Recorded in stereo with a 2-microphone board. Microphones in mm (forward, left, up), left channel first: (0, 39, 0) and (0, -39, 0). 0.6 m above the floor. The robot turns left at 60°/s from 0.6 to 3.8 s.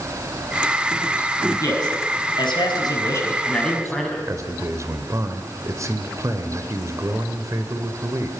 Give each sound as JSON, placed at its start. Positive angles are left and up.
{"t": 1.6, "sound": "a man speaking", "azimuth_deg": 135, "distance_m": 6.0}
{"t": 4.3, "sound": "a man speaking", "side_deg": -40, "distance_m": 2.5}